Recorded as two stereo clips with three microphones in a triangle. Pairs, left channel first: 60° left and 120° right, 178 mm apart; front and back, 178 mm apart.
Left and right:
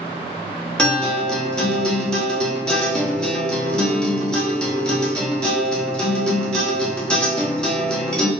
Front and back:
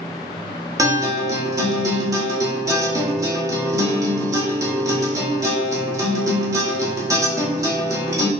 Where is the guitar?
135° left, 1.0 m.